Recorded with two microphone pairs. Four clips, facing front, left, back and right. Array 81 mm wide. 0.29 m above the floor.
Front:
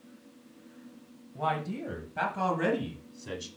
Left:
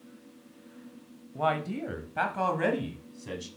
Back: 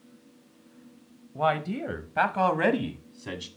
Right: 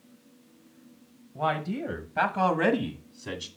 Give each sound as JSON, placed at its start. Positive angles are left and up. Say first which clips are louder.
{"t": 1.4, "sound": "a man speaking", "louder": "even, back 5 dB", "azimuth_deg": -175, "distance_m": 1.0}